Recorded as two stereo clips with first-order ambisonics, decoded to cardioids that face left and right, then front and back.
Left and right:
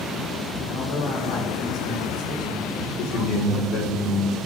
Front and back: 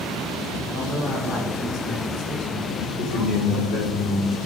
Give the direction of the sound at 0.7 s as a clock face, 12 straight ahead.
10 o'clock.